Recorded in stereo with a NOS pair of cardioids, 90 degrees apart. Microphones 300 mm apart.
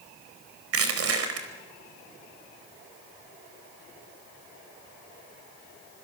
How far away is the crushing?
About 4.5 m.